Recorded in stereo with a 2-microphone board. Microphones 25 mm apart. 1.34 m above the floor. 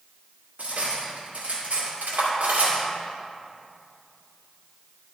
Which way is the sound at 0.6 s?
80° right.